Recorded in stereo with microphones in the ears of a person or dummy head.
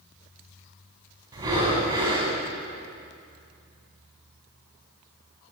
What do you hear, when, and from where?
1.3 s breathing: 20° right (ahead or behind), 4.5 m